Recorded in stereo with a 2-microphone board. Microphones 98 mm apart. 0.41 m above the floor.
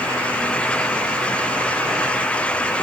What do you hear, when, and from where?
Only background noise.